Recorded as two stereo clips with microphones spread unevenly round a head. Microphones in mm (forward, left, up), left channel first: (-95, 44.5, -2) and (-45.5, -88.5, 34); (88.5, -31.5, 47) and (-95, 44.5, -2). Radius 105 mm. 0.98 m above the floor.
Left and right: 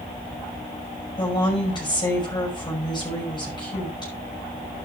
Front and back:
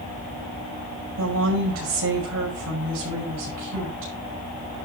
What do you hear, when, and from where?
1.2 s a woman speaking: 170° left, 5.5 m